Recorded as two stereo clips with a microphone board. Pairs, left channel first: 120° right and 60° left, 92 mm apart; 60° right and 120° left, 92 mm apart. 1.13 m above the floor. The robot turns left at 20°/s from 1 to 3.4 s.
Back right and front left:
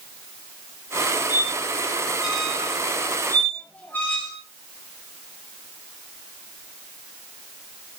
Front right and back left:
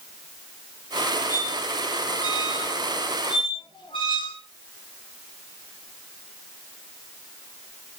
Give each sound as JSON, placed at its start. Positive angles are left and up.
{"t": 1.3, "sound": "a squeak", "azimuth_deg": -10, "distance_m": 5.0}